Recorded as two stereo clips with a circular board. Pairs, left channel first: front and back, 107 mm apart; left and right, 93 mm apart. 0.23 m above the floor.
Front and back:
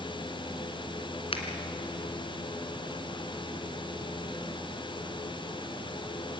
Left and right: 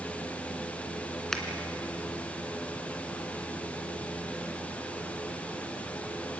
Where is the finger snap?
5° left, 2.5 m.